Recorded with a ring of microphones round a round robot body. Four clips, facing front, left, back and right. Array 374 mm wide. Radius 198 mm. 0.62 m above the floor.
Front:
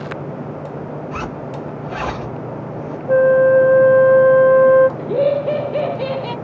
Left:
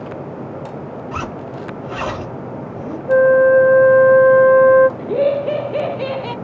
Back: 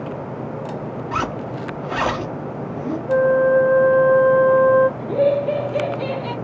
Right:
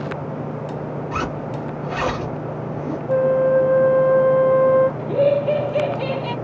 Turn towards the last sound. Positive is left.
turn(degrees=55)